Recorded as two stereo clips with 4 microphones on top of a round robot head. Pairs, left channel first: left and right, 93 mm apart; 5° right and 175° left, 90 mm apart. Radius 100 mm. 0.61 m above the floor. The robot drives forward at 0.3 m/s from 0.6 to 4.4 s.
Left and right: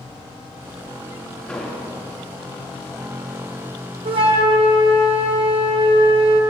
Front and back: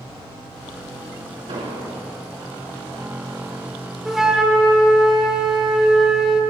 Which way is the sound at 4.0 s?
100° right.